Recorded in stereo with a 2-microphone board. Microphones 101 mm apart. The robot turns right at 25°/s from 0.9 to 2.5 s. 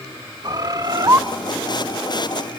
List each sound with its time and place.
0.4 s a bird: 40° right (ahead or behind), 0.6 m; by 1.2 s 35° right (ahead or behind), 0.6 m